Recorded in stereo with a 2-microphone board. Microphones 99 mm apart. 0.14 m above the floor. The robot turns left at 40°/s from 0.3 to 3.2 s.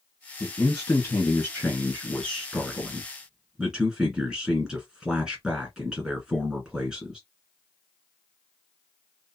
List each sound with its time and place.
0.4 s a man speaking: 20° left (ahead or behind), 1.6 m; by 7.2 s 5° right (ahead or behind), 1.6 m